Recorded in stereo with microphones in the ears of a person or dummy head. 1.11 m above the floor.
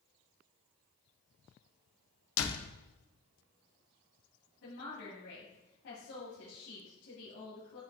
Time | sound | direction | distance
2.4 | a door slam | 80° left | 0.9 m
4.6 | a woman speaking | 70° left (ahead or behind) | 3 m